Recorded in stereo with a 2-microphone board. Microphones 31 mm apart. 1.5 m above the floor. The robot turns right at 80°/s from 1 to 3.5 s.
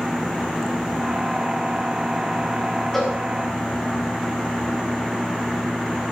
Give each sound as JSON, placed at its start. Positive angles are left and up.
{"t": 2.9, "sound": "a cowbell", "side_deg": 5, "distance_m": 4.5}